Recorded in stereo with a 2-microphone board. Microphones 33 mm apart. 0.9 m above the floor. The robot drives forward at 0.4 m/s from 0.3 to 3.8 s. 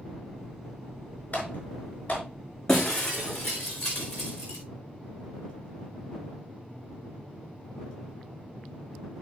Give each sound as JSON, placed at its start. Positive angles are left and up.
{"t": 1.3, "sound": "typing on a keyboard", "side_deg": 50, "distance_m": 5.0}
{"t": 2.7, "sound": "breaking glass", "side_deg": 20, "distance_m": 3.5}